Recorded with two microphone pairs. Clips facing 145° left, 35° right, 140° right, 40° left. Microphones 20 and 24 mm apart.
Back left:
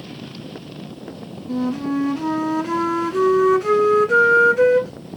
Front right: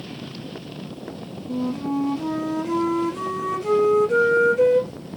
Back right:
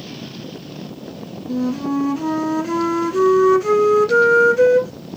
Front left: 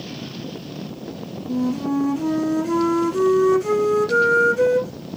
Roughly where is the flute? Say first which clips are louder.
Back left 3 dB, back right 1 dB; behind left.